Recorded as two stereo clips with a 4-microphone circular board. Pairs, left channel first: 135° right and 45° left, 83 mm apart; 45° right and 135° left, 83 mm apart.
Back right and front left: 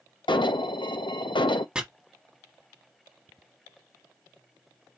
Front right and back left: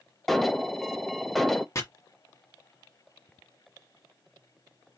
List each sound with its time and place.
0.3 s an alarm: 130° right, 0.6 m
1.8 s chopping: 30° right, 1.3 m